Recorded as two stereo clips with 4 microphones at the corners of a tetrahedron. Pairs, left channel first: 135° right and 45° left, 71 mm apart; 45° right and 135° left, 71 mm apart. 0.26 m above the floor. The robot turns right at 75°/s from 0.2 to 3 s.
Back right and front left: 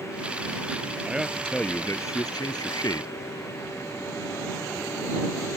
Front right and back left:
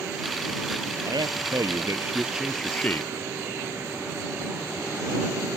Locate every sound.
1.1 s a man speaking: 115° left; by 3.1 s 100° right